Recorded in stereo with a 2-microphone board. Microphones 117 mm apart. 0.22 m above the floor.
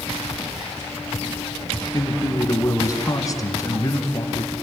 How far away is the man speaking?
About 3 m.